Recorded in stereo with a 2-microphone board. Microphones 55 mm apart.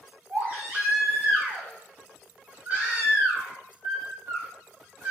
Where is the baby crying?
35° right (ahead or behind), 1.3 m.